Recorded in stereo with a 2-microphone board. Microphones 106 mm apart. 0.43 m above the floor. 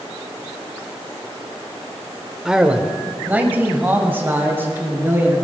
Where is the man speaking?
5° right (ahead or behind), 1.2 m; by 5.3 s 20° right (ahead or behind), 4.5 m.